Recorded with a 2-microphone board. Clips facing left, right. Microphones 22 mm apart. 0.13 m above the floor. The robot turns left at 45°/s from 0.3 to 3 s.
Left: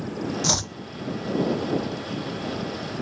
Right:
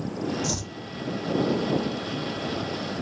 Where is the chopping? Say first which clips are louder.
Left 6 dB; 55° left (ahead or behind); by 0.7 s 40° left (ahead or behind).